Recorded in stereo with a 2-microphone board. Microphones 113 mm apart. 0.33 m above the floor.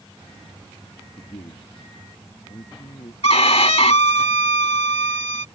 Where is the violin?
70° left (ahead or behind).